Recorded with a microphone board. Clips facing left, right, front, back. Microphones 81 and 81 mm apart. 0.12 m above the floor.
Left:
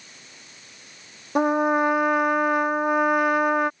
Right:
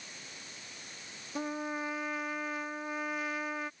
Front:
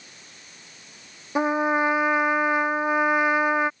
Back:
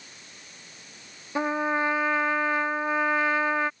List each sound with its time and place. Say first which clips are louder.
1.4 s a trumpet: left 16 dB, front 4 dB; 75° left